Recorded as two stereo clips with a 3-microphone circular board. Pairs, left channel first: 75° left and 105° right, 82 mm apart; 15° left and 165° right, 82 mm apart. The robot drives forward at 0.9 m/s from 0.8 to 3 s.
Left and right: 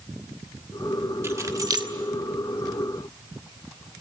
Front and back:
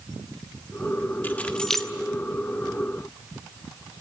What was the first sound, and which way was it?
Keys jangling, 50° right.